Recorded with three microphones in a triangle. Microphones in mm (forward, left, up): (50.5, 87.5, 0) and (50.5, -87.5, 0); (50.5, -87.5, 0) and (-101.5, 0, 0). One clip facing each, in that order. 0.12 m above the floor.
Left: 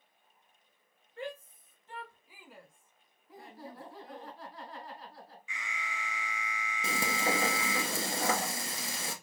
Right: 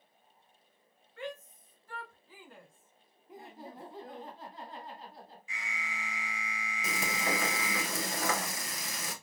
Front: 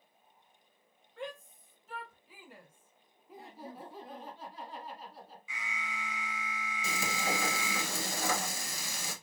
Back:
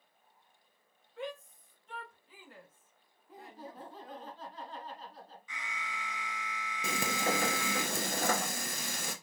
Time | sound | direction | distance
1.2 | a shout | 60° left | 1.6 m
3.3 | laughter | 95° right | 1.4 m
5.5 | an alarm | 110° right | 1.2 m
6.8 | frying | 145° left | 1.0 m